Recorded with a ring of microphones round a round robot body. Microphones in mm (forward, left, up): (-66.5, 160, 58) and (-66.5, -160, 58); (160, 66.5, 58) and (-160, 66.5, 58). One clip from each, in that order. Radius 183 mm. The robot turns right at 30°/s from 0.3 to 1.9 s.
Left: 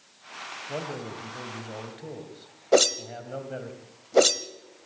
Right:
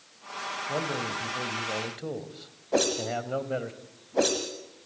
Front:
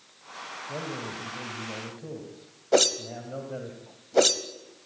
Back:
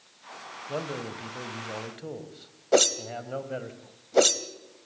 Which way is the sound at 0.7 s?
Straight behind.